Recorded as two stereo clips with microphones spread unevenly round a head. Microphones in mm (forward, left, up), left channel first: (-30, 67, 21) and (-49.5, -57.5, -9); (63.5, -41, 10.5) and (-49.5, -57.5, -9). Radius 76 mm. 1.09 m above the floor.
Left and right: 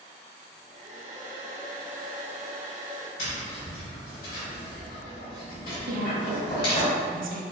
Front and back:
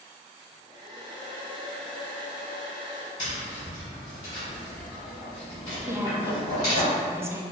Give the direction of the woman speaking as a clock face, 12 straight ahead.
3 o'clock.